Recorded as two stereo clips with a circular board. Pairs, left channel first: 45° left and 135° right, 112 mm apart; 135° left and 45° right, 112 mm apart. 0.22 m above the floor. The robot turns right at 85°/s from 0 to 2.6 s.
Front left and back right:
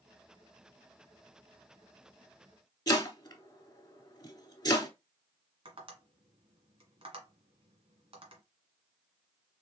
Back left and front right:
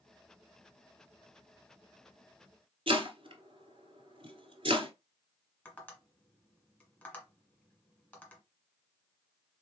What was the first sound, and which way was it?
Chopping, 10° right.